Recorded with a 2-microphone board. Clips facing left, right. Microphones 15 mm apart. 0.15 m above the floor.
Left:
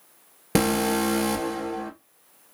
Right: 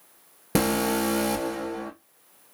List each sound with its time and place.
0.6 s an alarm: 20° left (ahead or behind), 2 m